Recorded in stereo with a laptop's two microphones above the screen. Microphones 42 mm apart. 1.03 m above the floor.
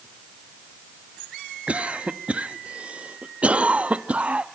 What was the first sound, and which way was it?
A cough, 30° right (ahead or behind).